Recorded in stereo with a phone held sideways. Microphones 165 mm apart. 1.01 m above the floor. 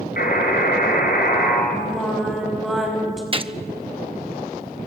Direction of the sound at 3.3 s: 35° right (ahead or behind).